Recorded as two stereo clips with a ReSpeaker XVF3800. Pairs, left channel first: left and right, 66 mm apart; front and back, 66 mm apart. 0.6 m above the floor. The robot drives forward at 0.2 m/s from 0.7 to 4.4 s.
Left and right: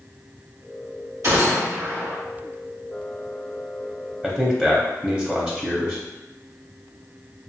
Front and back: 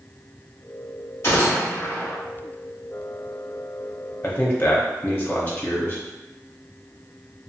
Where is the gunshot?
50° right, 1.6 m; by 2.2 s 55° right, 1.5 m.